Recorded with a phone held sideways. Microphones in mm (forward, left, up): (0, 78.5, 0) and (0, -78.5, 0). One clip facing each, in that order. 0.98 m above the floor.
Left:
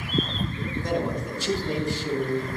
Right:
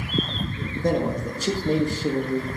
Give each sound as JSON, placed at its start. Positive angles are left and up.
{"t": 0.8, "sound": "a man speaking", "side_deg": -45, "distance_m": 1.7}